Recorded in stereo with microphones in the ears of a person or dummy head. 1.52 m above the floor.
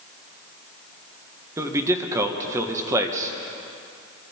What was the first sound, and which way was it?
A man speaking, 15° right (ahead or behind).